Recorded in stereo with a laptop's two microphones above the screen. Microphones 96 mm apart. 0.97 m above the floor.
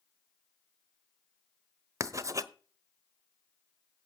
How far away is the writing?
About 1.0 m.